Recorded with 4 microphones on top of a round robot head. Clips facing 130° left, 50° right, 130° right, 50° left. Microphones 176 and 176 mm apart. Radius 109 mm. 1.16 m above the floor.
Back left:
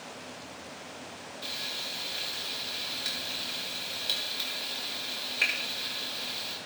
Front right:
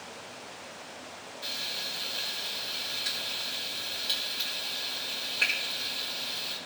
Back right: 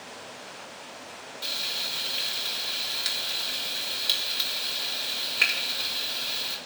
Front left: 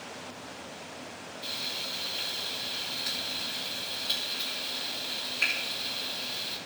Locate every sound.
1.4 s frying: 150° right, 1.6 m